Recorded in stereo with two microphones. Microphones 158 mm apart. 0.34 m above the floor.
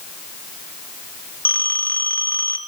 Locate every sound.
1.4 s a phone ringing: 10° left (ahead or behind), 3 m